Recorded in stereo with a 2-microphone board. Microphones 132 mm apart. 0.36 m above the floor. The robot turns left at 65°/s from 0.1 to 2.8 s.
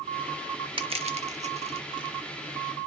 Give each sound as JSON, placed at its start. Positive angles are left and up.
{"t": 0.8, "sound": "crushing", "side_deg": -40, "distance_m": 0.6}